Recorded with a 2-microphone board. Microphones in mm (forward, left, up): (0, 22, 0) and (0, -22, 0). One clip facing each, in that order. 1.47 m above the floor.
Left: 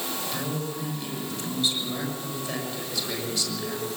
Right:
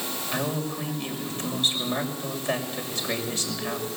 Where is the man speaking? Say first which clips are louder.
Right 6 dB; 30° right (ahead or behind), 6.5 m.